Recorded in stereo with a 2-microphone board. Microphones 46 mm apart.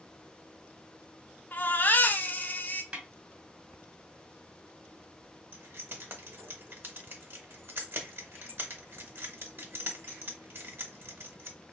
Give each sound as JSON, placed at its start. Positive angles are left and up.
{"t": 1.5, "sound": "a baby crying", "side_deg": 40, "distance_m": 0.7}
{"t": 2.9, "sound": "a snare drum", "side_deg": -25, "distance_m": 1.7}
{"t": 5.5, "sound": "keys jangling", "side_deg": -50, "distance_m": 1.2}